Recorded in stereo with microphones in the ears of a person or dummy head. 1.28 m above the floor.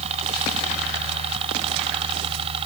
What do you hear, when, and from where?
0.0 s a helicopter: 35° right (ahead or behind)